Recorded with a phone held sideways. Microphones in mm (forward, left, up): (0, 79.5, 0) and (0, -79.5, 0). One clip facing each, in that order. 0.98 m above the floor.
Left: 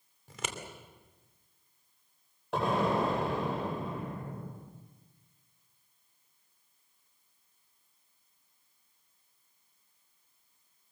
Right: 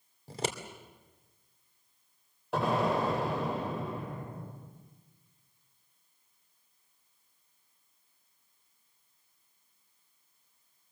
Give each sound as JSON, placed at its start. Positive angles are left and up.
{"t": 0.3, "sound": "scissors", "side_deg": -35, "distance_m": 2.5}
{"t": 2.5, "sound": "an explosion", "side_deg": 0, "distance_m": 9.0}